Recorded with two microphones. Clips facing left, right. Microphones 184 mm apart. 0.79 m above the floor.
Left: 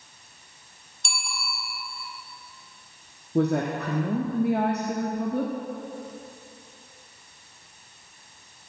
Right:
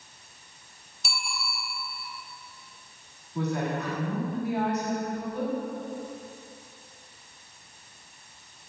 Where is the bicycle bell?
5° right (ahead or behind), 3 m.